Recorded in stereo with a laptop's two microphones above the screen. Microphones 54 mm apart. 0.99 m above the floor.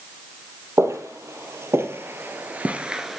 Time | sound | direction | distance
0.8 | footsteps | 60° right (ahead or behind) | 2 m